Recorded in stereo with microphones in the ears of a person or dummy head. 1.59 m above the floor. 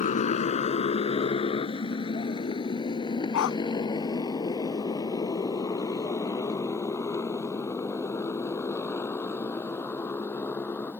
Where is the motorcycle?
40° left (ahead or behind); by 11.0 s 15° left (ahead or behind).